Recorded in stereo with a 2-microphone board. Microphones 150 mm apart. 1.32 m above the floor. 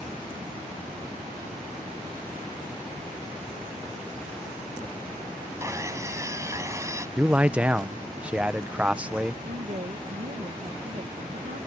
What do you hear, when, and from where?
5.6 s sawing: 20° right (ahead or behind)
7.2 s a man speaking: 10° right (ahead or behind)
9.4 s a woman speaking: 60° right (ahead or behind)